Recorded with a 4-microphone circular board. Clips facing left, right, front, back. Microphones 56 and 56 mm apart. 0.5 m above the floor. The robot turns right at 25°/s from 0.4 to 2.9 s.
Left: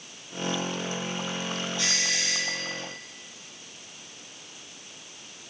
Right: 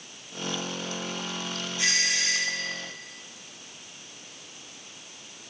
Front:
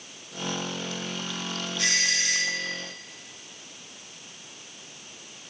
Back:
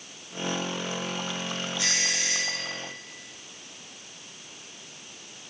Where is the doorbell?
25° right, 5 m; by 2.7 s straight ahead, 5 m.